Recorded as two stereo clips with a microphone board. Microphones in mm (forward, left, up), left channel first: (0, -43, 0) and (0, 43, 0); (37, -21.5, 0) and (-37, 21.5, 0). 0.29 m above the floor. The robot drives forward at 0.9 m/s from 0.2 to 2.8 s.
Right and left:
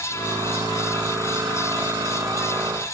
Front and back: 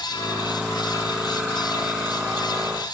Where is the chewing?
No chewing in this recording.